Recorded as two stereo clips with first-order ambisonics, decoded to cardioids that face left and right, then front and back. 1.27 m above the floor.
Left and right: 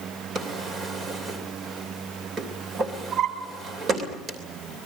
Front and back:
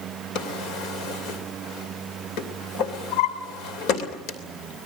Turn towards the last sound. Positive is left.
turn(degrees=-25)